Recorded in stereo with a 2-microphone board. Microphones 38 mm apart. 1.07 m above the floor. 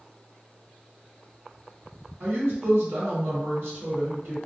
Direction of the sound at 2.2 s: 80° right.